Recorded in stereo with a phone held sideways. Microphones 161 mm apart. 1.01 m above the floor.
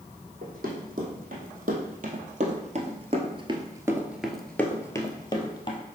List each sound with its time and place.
0.4 s running footsteps: 60° right (ahead or behind), 3 m; by 5.8 s 35° left (ahead or behind), 1.7 m